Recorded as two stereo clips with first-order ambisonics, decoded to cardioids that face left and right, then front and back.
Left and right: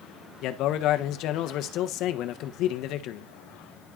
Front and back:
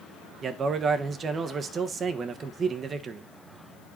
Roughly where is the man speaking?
Behind left.